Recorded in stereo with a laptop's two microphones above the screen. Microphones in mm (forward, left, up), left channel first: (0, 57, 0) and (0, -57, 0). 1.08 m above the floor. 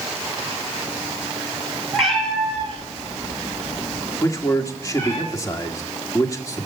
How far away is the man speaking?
About 2 m.